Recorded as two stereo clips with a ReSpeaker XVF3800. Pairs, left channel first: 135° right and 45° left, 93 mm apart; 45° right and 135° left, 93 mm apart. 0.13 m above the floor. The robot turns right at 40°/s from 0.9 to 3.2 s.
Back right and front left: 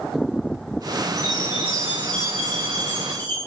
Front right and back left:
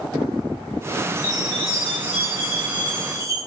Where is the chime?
5° right, 5 m; by 3.4 s 75° left, 5 m.